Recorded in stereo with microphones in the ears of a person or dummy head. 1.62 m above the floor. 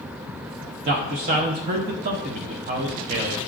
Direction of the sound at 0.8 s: 30° right (ahead or behind).